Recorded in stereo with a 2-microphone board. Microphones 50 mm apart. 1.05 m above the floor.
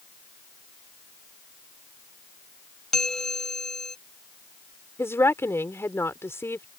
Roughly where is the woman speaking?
Left.